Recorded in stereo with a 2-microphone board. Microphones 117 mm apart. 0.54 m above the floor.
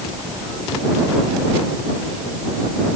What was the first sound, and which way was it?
Only background noise.